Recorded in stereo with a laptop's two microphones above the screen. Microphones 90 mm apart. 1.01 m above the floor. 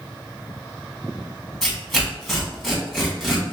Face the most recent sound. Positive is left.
turn(degrees=5)  # may be behind; listen again after turning